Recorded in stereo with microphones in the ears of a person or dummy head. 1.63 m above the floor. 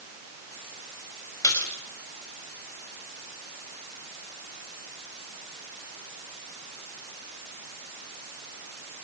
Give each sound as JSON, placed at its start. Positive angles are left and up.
{"t": 1.4, "sound": "a splash", "side_deg": 20, "distance_m": 4.5}